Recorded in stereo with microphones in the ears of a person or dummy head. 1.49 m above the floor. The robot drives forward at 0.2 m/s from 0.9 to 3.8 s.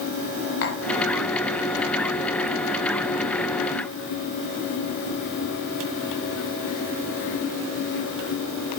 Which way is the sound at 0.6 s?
60° left (ahead or behind).